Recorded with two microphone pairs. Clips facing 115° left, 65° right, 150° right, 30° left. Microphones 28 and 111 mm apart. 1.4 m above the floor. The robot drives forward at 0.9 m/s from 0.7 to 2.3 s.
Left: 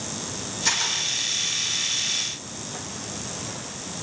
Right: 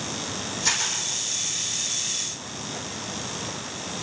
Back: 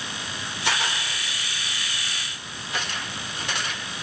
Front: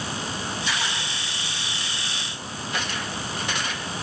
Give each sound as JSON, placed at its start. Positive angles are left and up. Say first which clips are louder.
{"t": 0.7, "sound": "a camera shutter", "louder": "left 2 dB, back 5 dB", "azimuth_deg": -155, "distance_m": 6.0}